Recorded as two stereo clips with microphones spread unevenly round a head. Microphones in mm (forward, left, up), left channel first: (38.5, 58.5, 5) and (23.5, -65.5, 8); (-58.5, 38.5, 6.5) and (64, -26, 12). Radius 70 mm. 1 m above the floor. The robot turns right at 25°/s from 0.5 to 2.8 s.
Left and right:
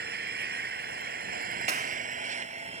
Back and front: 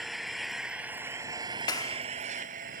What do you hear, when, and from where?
0.0 s an engine running: 115° right; by 2.8 s 60° right
1.7 s a clap: 145° right; by 2.0 s 135° right